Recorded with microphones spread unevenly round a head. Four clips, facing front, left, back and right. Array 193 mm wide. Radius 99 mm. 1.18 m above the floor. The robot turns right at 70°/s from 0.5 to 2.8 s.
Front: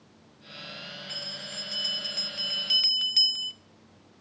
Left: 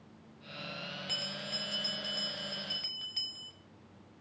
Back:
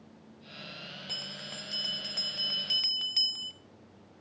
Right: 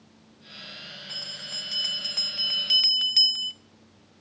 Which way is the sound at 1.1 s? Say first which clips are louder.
Left 2 dB, front 2 dB; 155° left.